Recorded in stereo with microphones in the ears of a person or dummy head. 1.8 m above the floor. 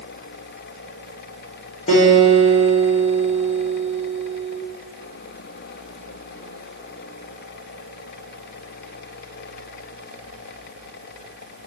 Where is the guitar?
45° left (ahead or behind), 1.2 m.